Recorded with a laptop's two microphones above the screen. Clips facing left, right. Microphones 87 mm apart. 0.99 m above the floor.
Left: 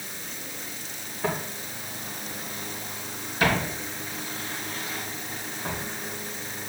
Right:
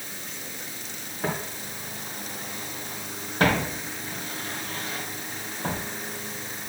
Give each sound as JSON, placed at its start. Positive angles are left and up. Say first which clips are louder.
{"t": 1.2, "sound": "footsteps", "louder": "left 1 dB", "side_deg": -30, "distance_m": 3.5}